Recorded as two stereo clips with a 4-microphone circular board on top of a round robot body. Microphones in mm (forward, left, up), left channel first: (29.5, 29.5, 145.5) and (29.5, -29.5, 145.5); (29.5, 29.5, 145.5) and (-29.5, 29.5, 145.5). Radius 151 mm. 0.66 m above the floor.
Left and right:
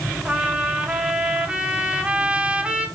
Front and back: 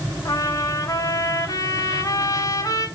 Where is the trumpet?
20° right, 3.5 m.